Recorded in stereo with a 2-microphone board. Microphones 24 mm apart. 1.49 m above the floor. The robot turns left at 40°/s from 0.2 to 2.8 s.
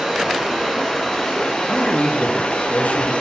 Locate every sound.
0.0 s running water: 160° right, 2.5 m; by 3.2 s 95° left, 2.5 m
1.7 s a man speaking: 135° left, 0.9 m; by 3.1 s 95° left, 0.9 m